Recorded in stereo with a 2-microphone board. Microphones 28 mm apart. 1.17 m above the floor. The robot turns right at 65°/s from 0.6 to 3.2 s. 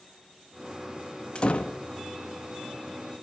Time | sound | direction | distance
1.4 | a door slam | 35° left (ahead or behind) | 1.2 m